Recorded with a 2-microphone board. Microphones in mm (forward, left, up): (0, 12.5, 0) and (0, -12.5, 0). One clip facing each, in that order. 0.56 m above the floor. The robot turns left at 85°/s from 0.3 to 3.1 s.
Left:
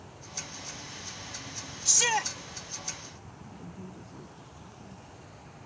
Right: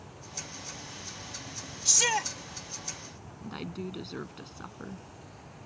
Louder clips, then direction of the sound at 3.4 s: Right 9 dB; 75° right (ahead or behind).